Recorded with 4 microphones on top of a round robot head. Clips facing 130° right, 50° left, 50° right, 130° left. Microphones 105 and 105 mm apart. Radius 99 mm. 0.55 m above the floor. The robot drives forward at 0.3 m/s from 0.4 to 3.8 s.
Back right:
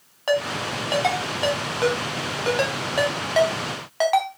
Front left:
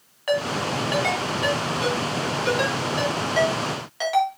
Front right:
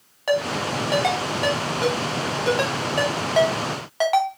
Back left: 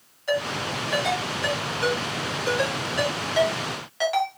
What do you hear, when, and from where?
0.3 s a ringtone: 70° right, 2.5 m; by 4.3 s 95° right, 2.5 m